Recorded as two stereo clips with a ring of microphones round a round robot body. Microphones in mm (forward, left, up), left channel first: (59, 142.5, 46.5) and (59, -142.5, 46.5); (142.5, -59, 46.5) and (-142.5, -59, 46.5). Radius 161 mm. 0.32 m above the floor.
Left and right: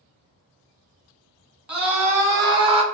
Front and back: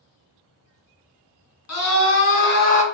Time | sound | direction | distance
1.7 | a scream | 5° right | 2.0 m